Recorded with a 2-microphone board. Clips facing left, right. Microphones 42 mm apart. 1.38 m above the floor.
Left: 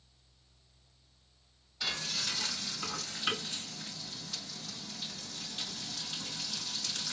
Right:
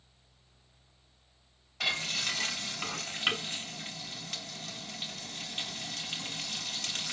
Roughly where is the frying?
Right.